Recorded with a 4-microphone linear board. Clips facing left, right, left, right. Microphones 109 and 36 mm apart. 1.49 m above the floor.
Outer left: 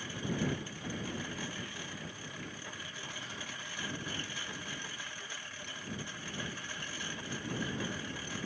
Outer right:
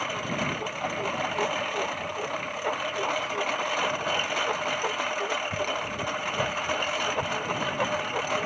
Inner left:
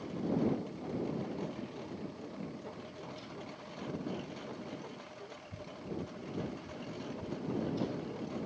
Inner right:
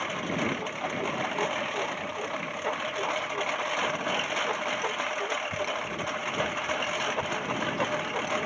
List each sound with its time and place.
0.0 s a lawn mower: 70° right (ahead or behind)